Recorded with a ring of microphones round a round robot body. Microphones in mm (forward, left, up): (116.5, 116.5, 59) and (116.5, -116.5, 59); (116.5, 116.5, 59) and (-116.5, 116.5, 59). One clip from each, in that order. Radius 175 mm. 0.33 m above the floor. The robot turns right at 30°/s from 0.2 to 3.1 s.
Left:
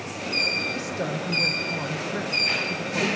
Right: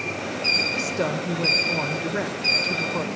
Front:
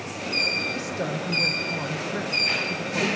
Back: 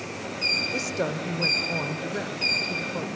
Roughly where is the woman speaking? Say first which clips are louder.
Right 4 dB, back 1 dB; behind.